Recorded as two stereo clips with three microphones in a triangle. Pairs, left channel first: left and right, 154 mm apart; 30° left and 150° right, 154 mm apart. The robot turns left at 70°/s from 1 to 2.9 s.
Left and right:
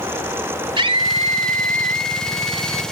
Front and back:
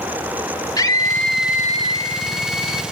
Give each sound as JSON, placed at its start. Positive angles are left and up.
{"t": 0.8, "sound": "a scream", "azimuth_deg": -35, "distance_m": 2.5}